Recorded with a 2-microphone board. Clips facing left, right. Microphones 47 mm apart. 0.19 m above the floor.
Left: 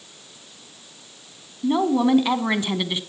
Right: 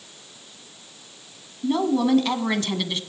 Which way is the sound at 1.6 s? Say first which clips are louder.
Left 2 dB; 20° left (ahead or behind).